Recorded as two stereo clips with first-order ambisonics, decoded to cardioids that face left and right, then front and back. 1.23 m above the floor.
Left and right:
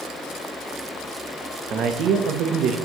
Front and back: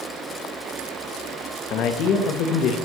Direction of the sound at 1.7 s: 40° right.